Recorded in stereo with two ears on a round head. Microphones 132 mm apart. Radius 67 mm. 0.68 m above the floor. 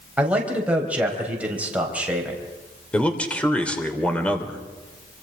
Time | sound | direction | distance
0.2 | a man speaking | 10° right (ahead or behind) | 4 m
2.9 | a man speaking | 10° left (ahead or behind) | 3 m